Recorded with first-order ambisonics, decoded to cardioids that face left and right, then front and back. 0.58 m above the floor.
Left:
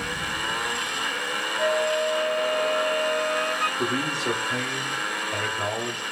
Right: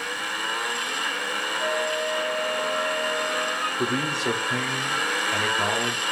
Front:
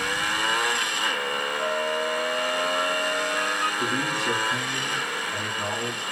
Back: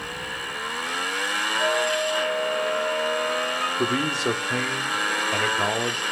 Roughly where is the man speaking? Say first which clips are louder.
Right 1 dB, back 1 dB; behind.